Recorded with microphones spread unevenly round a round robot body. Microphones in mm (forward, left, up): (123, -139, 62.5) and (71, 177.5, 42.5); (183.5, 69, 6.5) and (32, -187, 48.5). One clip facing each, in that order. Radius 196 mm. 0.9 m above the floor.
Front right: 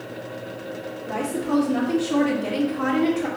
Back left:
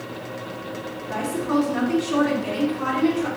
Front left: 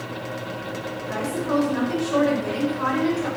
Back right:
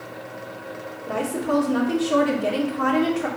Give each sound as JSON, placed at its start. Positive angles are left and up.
{"t": 1.1, "sound": "a woman speaking", "azimuth_deg": -120, "distance_m": 3.0}